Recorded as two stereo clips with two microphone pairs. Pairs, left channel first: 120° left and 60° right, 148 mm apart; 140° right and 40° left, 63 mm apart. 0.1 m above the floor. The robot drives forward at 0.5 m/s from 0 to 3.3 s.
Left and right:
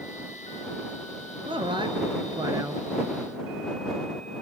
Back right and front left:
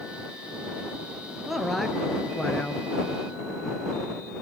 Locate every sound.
1.5 s a man speaking: 45° right, 1.4 m; by 2.8 s 95° right, 1.3 m